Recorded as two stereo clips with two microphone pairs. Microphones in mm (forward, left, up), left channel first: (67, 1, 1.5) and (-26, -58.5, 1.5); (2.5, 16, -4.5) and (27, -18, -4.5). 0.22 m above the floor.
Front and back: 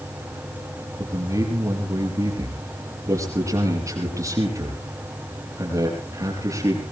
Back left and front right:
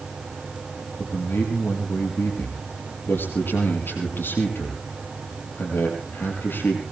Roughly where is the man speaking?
Behind left.